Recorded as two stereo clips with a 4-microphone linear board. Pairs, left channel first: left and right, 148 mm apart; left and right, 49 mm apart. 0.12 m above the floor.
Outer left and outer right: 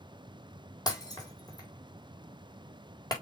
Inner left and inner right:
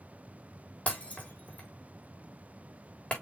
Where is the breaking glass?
30° left (ahead or behind), 3.5 m.